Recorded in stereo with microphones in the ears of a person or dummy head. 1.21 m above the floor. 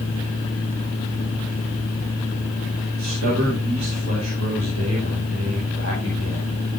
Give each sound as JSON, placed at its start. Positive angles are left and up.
{"t": 0.0, "sound": "a fan", "side_deg": 40, "distance_m": 1.5}
{"t": 3.0, "sound": "a man speaking", "side_deg": -75, "distance_m": 6.5}